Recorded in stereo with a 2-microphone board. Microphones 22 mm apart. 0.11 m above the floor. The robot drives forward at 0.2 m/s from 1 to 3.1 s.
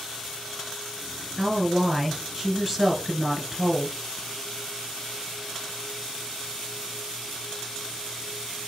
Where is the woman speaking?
15° right (ahead or behind), 1.7 m.